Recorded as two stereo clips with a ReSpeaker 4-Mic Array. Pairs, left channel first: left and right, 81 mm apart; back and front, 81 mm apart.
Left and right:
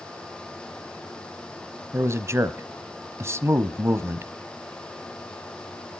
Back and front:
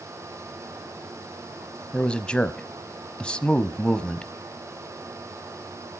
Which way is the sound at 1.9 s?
110° right.